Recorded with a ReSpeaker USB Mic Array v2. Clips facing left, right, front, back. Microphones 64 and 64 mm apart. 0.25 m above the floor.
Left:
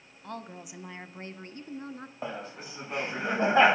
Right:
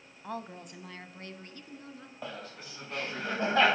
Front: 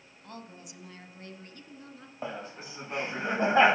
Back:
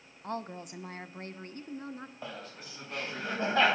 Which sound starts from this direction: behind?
A woman speaking, at 0.2 s.